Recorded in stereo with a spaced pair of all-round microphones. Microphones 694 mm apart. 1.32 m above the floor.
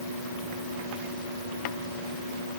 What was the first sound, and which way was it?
Only background noise.